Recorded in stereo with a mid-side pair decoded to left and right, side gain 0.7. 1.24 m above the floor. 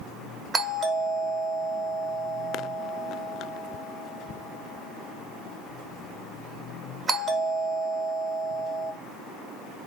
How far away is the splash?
I don't hear a splash.